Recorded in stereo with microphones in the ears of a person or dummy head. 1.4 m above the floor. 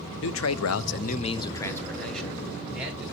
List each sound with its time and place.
0.2 s a man speaking: 60° left (ahead or behind), 0.8 m; by 3.1 s 5° right (ahead or behind), 2.5 m